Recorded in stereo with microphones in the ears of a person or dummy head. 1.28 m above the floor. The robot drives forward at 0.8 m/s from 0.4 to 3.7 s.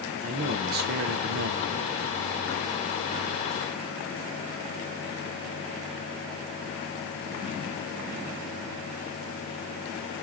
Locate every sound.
0.2 s a man speaking: 40° right (ahead or behind), 0.9 m; by 1.7 s 45° right (ahead or behind), 0.9 m